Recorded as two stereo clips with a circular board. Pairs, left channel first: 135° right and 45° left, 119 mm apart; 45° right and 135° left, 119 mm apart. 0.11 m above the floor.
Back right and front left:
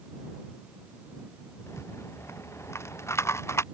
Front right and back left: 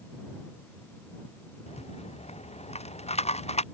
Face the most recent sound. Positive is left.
turn(degrees=-70)